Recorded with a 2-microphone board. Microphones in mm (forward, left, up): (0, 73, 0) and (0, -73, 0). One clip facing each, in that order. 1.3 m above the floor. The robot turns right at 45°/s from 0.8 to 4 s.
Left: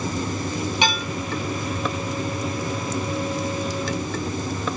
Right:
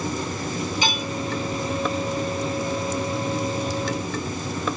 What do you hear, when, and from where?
0.8 s dishes clattering: 70° left (ahead or behind), 1.4 m; by 1.0 s 60° left (ahead or behind), 1.4 m